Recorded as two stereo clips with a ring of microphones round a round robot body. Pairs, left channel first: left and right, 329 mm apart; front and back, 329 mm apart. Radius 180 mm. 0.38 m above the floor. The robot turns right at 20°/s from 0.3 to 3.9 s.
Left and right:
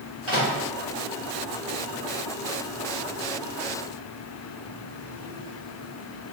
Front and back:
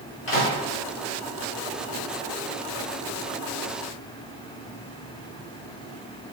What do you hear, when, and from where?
0.3 s a microwave: 20° right, 1.1 m; by 0.5 s 15° right, 1.1 m